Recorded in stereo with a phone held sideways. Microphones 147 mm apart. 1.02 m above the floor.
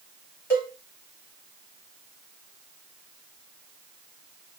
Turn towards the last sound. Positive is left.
turn(degrees=15)  # may be behind; listen again after turning